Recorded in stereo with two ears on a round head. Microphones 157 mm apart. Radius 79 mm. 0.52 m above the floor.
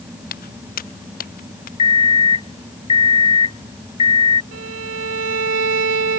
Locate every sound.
0.3 s footsteps: 55° left (ahead or behind); by 1.7 s 50° left (ahead or behind)
1.8 s an alarm clock: 30° left (ahead or behind)
4.5 s a violin: 75° right (ahead or behind)